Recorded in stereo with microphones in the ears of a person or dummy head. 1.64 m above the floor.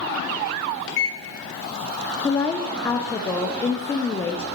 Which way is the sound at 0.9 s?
70° left (ahead or behind).